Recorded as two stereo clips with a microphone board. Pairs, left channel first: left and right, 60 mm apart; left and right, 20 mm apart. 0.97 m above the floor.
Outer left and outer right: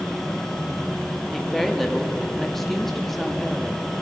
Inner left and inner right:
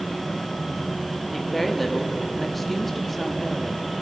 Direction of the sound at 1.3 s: 5° left (ahead or behind).